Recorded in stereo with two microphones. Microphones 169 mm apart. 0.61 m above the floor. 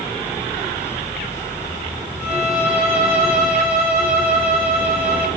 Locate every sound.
2.2 s a violin: 5° right (ahead or behind), 5 m